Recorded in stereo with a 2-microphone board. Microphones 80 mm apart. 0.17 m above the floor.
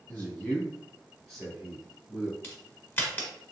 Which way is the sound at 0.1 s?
20° left (ahead or behind).